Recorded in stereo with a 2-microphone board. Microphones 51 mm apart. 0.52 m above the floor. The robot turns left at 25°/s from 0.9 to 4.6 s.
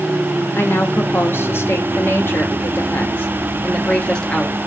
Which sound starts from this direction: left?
A woman speaking, at 0.6 s.